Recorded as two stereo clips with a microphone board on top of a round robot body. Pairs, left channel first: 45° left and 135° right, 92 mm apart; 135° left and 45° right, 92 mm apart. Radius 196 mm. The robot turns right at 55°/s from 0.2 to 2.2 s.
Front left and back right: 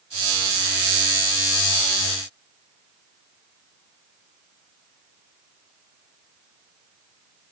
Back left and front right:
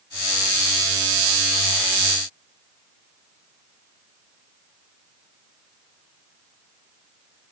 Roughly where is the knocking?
No knocking in this recording.